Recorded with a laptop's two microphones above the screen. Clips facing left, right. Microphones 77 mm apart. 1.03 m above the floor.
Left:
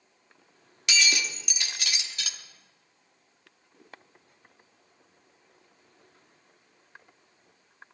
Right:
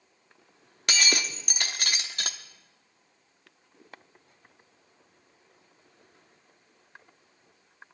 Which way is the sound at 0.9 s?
45° right (ahead or behind).